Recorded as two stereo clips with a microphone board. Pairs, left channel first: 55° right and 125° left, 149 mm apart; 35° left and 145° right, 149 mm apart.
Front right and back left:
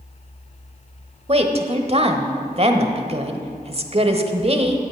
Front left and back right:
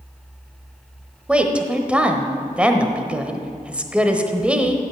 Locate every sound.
1.3 s a woman speaking: 135° left, 1.1 m